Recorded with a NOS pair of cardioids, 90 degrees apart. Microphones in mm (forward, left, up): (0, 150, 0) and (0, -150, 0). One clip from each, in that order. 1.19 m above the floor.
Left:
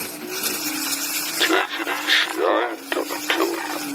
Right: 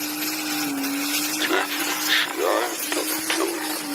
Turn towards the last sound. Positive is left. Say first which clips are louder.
# left 5 dB
turn(degrees=30)